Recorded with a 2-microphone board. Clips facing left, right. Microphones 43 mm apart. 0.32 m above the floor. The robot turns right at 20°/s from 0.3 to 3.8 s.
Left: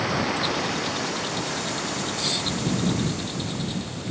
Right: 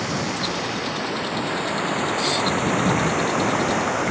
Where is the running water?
175° left; by 4.1 s 115° right.